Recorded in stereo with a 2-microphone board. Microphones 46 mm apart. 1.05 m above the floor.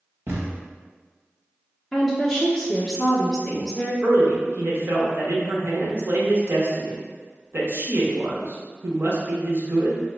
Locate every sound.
0.3 s a thud: 60° right (ahead or behind), 1.2 m
1.9 s a woman speaking: 5° left (ahead or behind), 0.7 m
4.0 s a man speaking: 50° right (ahead or behind), 0.9 m